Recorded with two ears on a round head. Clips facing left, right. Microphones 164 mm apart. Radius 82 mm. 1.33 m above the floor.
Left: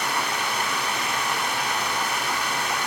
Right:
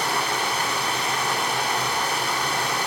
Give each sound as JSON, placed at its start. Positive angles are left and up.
{"t": 0.0, "sound": "running water", "side_deg": -30, "distance_m": 2.5}